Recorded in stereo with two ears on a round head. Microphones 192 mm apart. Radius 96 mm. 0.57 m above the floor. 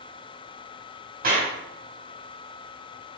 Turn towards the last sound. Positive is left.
turn(degrees=-45)  # may be behind; listen again after turning